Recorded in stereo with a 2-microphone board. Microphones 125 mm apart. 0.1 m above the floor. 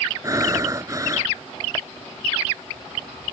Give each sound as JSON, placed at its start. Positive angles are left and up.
{"t": 0.2, "sound": "breathing", "side_deg": -30}